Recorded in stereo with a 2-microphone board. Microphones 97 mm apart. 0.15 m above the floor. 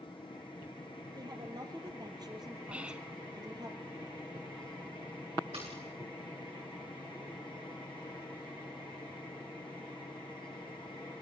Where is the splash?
65° right (ahead or behind), 9.5 m.